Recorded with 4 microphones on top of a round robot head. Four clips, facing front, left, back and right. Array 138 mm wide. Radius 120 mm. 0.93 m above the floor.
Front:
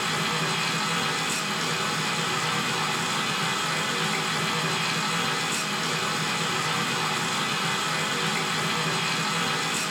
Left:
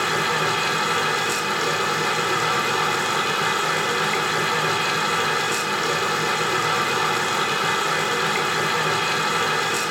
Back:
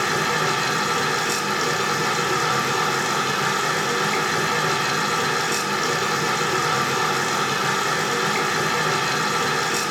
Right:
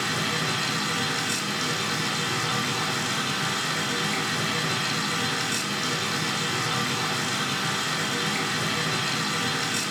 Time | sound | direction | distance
0.0 | running water | 150° left | 3 m